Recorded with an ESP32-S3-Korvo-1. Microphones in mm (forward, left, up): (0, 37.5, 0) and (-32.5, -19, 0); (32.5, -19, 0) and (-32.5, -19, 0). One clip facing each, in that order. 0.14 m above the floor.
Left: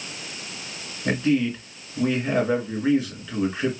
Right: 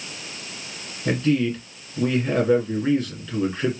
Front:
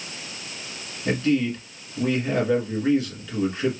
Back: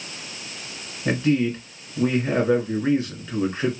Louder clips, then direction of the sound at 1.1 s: Right 1 dB, back 1 dB; 135° left.